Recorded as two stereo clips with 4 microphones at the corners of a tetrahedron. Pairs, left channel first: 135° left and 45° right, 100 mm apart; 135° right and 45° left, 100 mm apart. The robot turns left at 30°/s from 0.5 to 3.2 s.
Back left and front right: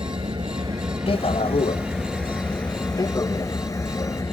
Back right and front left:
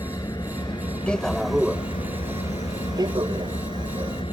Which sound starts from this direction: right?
An engine running, at 0.0 s.